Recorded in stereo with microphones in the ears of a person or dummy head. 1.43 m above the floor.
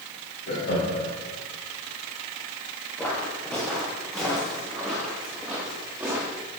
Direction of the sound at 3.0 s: 10° left (ahead or behind).